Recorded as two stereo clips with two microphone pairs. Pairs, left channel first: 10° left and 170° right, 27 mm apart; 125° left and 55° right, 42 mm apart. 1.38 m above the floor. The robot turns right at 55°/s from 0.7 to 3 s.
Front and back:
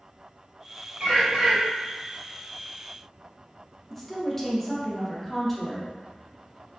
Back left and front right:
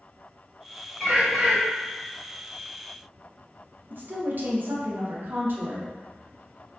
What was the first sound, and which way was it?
A bird, 160° right.